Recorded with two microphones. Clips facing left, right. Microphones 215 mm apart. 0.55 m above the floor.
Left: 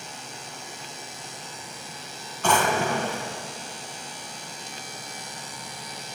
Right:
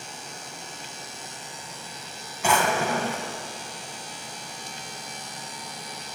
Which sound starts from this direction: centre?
A drawer, at 2.4 s.